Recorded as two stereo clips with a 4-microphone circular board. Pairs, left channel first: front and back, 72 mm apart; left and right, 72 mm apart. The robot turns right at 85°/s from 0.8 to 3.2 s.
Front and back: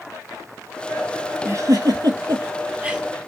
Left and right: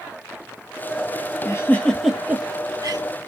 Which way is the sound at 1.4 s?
130° left.